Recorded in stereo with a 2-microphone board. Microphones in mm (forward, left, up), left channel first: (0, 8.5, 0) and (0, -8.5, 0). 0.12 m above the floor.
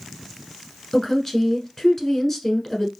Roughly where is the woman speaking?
Centre.